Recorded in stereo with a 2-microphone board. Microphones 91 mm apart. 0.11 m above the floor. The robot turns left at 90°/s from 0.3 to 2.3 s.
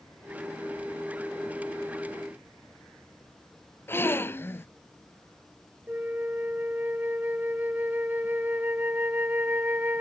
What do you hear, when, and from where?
3.9 s a gasp: 25° left (ahead or behind)
5.9 s a flute: 20° right (ahead or behind)